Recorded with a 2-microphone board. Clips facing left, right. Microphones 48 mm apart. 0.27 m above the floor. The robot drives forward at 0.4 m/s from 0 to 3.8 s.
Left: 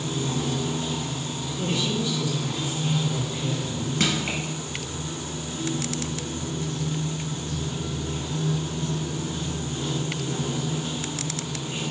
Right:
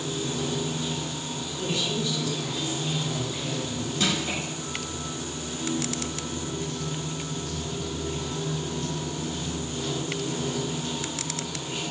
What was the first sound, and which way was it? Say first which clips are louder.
Running water: left 2 dB; 50° left (ahead or behind).